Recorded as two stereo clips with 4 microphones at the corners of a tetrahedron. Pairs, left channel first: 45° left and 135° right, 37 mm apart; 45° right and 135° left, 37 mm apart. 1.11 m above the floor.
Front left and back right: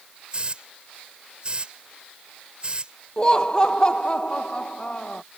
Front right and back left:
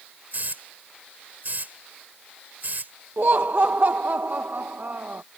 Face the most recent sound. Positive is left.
turn(degrees=105)